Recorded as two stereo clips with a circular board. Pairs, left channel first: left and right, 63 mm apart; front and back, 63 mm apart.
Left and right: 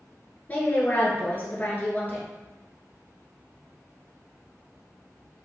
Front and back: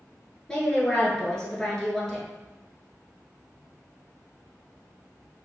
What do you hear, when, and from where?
0.5 s a woman speaking: 70° left, 1.2 m